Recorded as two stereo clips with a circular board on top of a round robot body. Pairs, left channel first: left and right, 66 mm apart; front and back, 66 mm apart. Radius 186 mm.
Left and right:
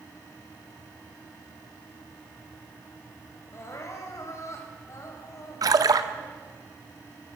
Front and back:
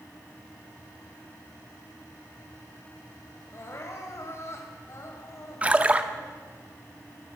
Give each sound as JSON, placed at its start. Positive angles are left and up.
{"t": 3.5, "sound": "crying", "azimuth_deg": 45, "distance_m": 4.0}
{"t": 5.6, "sound": "a splash", "azimuth_deg": -110, "distance_m": 1.5}